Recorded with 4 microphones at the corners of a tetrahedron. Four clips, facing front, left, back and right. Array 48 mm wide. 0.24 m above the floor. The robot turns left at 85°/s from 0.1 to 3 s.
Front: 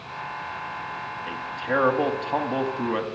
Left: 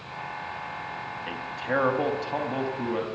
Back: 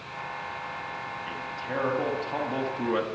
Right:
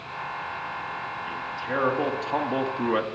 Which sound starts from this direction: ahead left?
A man speaking, at 1.3 s.